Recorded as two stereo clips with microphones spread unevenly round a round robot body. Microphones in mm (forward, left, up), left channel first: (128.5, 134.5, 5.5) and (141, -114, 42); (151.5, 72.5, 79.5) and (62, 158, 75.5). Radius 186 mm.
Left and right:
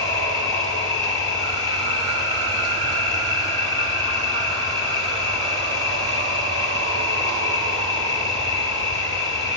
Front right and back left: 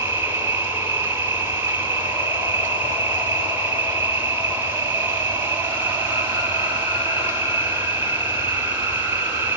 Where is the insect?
165° right, 2.0 m.